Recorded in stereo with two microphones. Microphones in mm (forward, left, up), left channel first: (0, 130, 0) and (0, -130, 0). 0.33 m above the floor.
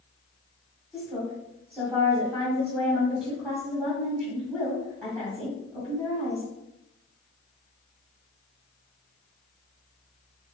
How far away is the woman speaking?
About 2 m.